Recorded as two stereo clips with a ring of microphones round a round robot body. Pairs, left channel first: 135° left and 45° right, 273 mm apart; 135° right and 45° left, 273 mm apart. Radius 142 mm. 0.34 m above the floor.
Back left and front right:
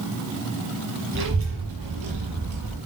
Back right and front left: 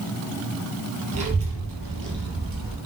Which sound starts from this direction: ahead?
A child speaking, at 1.1 s.